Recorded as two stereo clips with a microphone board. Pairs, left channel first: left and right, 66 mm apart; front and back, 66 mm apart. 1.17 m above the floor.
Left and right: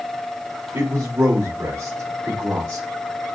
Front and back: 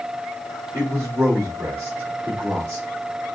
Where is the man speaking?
120° right, 2 m.